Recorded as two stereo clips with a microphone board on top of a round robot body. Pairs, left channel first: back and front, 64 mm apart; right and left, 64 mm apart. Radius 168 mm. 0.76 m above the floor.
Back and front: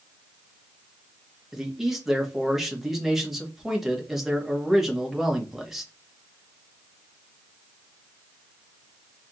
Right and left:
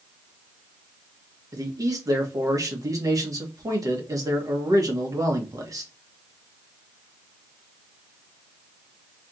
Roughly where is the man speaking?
Left.